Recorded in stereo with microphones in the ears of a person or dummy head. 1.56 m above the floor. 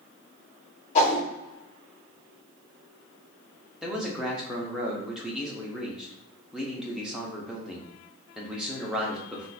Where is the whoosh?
45° left (ahead or behind), 0.9 m.